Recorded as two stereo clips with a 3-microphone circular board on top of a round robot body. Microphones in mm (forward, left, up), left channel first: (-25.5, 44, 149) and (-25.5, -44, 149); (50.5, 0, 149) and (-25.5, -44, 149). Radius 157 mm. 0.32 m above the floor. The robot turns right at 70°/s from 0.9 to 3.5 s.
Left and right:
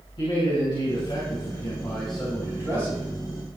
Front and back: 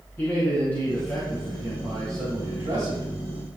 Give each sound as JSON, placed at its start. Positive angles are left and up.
{"t": 0.2, "sound": "a man speaking", "azimuth_deg": 95, "distance_m": 4.0}